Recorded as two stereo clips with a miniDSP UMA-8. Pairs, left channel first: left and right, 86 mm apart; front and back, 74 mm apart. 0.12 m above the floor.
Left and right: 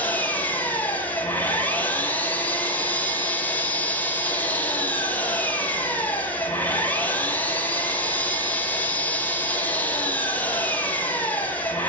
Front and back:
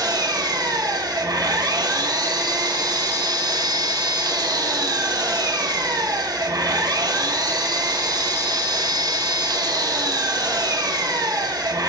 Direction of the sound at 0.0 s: 160° left.